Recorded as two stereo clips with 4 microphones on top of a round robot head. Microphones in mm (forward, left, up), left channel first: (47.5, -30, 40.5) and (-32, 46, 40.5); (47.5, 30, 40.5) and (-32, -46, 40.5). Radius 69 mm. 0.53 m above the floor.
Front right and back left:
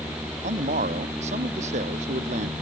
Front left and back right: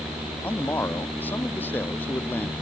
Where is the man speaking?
115° left.